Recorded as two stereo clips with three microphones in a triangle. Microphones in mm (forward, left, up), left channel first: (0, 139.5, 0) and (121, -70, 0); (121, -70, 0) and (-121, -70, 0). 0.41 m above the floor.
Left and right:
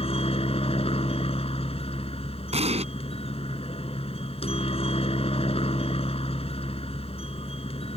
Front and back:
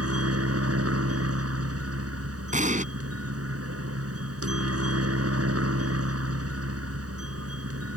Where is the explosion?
120° right.